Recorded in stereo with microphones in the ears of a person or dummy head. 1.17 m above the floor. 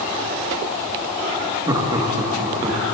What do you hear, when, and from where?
1.7 s laughter: 25° right (ahead or behind), 1.1 m